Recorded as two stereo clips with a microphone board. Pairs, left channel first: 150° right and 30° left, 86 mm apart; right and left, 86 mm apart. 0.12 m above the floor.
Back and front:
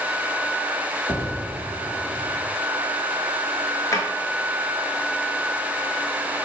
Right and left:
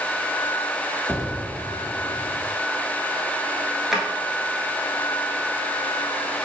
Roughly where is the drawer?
Behind.